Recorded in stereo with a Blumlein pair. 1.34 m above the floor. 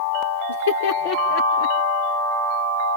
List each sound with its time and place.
0.5 s laughter: 70° left, 0.9 m; by 1.8 s 40° left, 1.5 m